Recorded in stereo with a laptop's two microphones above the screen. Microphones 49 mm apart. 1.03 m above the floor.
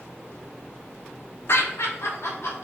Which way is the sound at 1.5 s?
60° left (ahead or behind).